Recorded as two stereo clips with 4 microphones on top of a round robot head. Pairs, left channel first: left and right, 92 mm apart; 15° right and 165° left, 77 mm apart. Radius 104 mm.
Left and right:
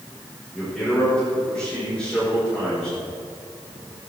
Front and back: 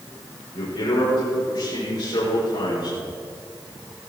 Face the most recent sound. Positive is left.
turn(degrees=10)